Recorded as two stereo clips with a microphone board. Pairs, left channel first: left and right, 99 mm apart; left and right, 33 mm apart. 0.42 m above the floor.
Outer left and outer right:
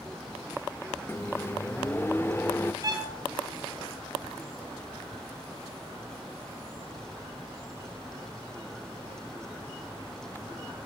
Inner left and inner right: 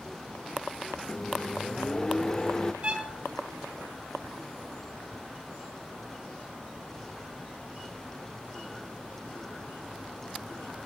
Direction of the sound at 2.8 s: 40° right (ahead or behind).